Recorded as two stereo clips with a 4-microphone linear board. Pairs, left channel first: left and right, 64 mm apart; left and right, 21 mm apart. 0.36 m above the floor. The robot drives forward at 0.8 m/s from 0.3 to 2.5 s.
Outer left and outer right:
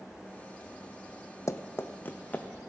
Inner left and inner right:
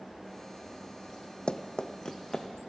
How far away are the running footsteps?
About 0.7 m.